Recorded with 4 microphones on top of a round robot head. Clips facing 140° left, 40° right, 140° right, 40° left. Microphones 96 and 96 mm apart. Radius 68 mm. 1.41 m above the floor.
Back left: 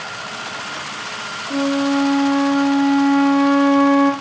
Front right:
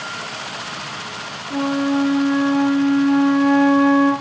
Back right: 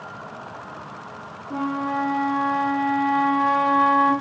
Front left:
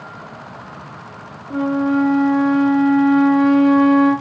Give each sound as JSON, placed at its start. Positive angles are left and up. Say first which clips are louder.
{"t": 1.5, "sound": "a flute", "louder": "back left 1 dB, front left 8 dB", "azimuth_deg": 95, "distance_m": 1.1}